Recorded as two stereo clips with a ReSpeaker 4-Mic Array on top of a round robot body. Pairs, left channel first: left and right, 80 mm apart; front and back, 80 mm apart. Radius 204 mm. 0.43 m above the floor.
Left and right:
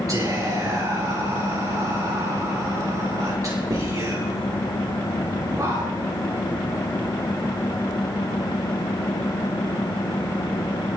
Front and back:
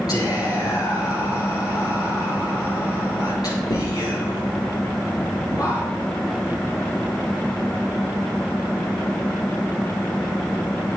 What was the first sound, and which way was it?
Whispering, 40° right.